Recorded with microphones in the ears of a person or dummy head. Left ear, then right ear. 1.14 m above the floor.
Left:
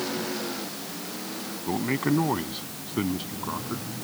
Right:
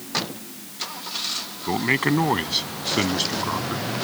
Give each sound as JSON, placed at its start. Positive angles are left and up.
{"t": 1.7, "sound": "a man speaking", "side_deg": -70}